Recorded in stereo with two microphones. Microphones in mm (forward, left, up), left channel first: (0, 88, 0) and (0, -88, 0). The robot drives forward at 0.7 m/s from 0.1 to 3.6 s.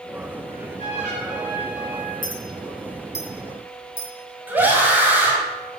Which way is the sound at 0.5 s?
40° right (ahead or behind).